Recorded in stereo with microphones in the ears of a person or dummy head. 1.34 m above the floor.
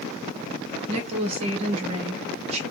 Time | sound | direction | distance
0.9 | a woman speaking | 35° right (ahead or behind) | 1.5 m